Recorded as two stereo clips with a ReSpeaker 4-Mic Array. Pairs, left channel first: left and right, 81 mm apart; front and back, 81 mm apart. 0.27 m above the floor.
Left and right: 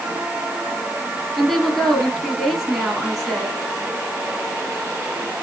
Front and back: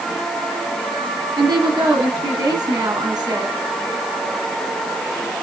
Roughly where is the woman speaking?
Behind.